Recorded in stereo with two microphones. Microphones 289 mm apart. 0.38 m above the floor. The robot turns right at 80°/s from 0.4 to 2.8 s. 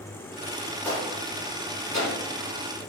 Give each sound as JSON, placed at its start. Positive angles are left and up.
{"t": 0.8, "sound": "a gunshot", "side_deg": 5, "distance_m": 2.0}